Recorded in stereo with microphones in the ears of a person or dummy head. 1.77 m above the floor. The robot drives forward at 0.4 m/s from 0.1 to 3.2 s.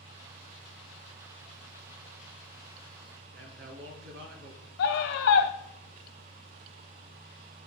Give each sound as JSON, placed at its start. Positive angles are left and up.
{"t": 3.3, "sound": "a man speaking", "side_deg": -75, "distance_m": 3.5}
{"t": 4.8, "sound": "a scream", "side_deg": 75, "distance_m": 1.8}